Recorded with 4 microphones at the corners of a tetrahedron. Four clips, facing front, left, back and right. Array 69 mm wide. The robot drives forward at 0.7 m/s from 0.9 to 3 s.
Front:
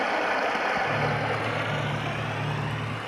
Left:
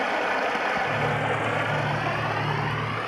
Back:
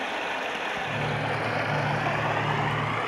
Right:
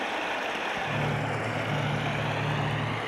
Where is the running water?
50° left, 0.8 m; by 3.1 s 160° left, 1.4 m.